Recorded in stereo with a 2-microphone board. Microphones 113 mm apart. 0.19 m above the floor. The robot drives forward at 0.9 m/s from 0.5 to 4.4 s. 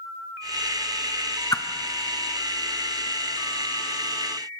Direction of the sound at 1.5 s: 35° left (ahead or behind).